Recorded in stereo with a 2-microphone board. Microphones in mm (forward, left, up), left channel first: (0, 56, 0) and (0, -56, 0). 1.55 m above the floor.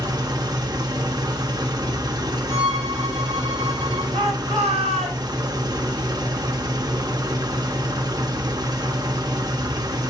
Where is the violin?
80° right, 4 m.